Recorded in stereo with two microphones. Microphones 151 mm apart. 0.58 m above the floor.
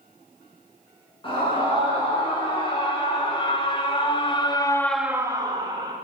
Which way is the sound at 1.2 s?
35° left (ahead or behind).